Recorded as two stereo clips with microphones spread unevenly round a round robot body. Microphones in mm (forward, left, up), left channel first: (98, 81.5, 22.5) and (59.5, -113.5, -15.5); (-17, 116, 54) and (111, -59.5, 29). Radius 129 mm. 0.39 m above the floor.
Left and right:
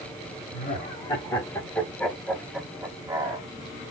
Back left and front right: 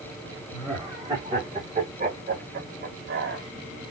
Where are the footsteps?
I don't hear footsteps.